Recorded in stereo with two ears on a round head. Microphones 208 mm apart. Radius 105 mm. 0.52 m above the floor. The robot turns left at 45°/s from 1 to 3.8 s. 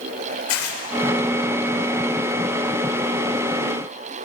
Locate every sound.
0.5 s tearing paper: 60° left (ahead or behind), 2.5 m